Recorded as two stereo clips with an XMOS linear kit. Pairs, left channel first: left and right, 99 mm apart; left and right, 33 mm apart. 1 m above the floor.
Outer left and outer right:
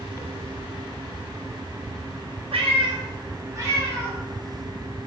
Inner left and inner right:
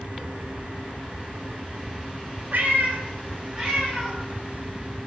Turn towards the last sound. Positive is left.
turn(degrees=-20)  # may be behind; listen again after turning